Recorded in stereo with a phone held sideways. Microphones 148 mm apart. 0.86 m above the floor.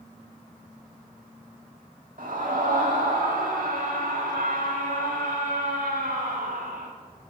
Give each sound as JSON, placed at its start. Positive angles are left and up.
{"t": 2.2, "sound": "a scream", "side_deg": -70, "distance_m": 1.7}